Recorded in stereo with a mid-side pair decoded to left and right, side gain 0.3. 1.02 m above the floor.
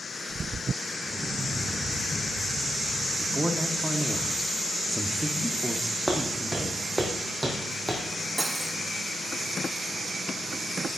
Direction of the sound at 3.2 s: 10° right.